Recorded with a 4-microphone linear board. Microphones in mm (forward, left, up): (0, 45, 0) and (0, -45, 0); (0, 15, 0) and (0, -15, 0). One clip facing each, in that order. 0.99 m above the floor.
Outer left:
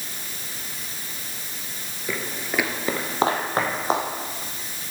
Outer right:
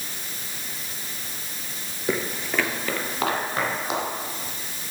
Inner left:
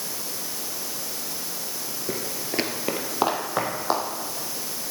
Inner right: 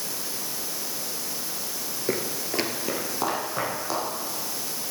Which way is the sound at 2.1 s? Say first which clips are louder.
Outer right 3 dB, inner right 3 dB; 20° right (ahead or behind).